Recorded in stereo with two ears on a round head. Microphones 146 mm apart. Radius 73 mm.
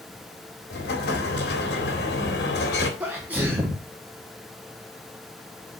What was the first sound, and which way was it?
An explosion, 70° left (ahead or behind).